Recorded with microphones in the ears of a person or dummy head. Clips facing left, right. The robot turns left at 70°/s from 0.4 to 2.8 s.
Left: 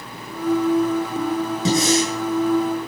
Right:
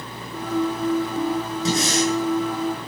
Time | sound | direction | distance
1.6 | breathing | 110° left | 9.5 m